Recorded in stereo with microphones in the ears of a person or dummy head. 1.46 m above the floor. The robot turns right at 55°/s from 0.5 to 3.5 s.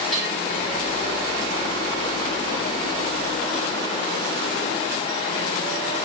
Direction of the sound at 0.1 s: Centre (ahead or behind).